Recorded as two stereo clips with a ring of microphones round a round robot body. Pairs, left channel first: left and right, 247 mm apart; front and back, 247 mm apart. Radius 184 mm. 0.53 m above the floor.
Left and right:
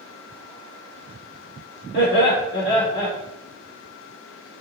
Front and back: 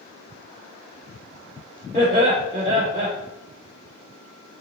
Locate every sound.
1.9 s laughter: 130° left, 1.9 m